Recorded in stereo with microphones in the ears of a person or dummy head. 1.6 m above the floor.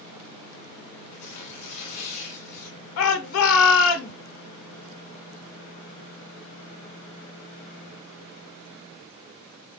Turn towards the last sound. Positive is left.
turn(degrees=70)  # may be behind; listen again after turning